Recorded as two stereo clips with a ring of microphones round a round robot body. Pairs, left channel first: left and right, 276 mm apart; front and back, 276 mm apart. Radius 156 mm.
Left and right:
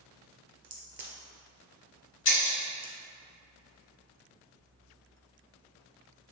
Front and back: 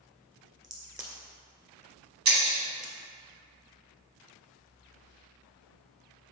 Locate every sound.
0.6 s a crack: 110° right, 1.7 m
2.2 s breaking glass: 140° left, 1.3 m